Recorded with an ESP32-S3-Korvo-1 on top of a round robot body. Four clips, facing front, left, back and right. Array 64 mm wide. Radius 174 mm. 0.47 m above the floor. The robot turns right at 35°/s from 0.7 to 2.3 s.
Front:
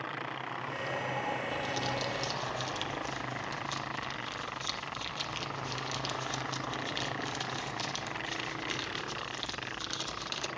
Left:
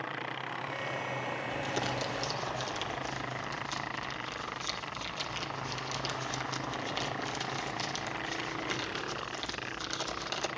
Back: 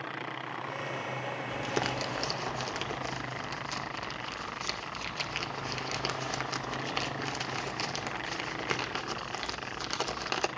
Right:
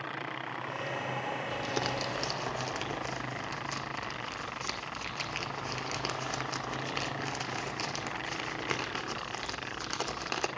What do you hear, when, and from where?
1.5 s crumpling: 175° right, 1.9 m; by 10.5 s 145° right, 1.9 m